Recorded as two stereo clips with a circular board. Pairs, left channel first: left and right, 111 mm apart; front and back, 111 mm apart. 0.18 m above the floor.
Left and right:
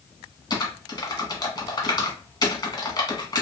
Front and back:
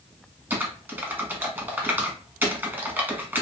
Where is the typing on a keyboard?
115° left, 0.7 m.